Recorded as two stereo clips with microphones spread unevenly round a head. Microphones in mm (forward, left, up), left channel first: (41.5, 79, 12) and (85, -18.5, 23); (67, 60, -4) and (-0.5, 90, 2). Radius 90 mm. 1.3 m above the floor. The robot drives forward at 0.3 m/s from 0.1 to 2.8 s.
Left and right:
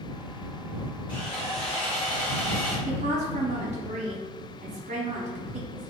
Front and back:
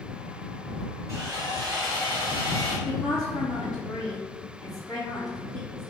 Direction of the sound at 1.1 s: 170° left.